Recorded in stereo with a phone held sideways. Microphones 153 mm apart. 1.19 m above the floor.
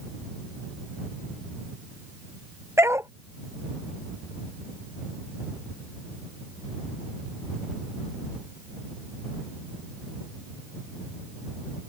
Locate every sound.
2.8 s a dog barking: 15° right (ahead or behind)